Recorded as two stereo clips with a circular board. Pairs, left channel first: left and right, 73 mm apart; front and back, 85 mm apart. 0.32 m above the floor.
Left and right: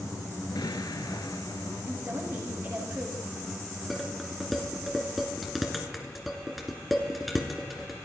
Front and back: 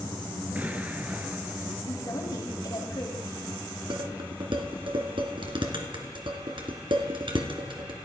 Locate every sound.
0.6 s an explosion: 110° left, 1.6 m
1.9 s a woman speaking: 40° right, 5.5 m
3.9 s dishes clattering: straight behind, 2.5 m